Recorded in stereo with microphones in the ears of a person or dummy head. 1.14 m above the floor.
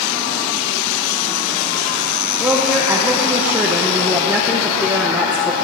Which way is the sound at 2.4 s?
5° right (ahead or behind).